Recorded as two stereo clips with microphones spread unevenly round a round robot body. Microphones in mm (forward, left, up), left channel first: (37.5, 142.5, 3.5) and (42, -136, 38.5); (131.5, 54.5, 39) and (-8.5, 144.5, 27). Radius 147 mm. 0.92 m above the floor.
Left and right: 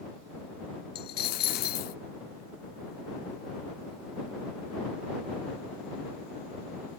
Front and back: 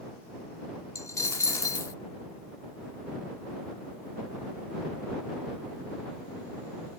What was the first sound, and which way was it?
A dropped coin, 35° left.